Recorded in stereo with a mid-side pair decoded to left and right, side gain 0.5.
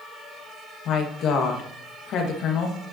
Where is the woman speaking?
65° left, 2 m.